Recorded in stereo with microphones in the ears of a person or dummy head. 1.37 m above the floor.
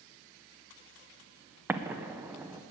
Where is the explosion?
10° right (ahead or behind), 0.7 m.